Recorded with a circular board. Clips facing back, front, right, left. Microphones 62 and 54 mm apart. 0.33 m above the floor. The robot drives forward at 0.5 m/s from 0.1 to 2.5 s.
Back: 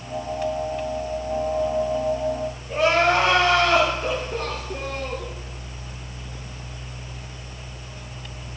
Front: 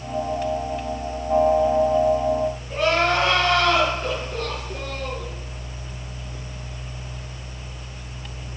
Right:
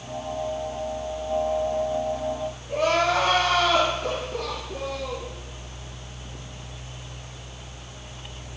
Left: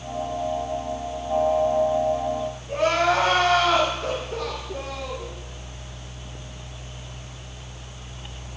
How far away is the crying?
About 5 m.